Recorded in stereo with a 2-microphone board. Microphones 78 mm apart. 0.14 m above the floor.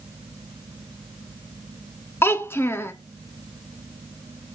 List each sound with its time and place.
2.2 s a child speaking: 30° left (ahead or behind), 0.8 m